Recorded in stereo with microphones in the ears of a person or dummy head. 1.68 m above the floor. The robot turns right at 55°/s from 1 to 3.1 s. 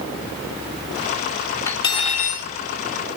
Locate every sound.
1.7 s cutlery clinking: 15° left, 3 m; by 2.5 s 60° left, 3 m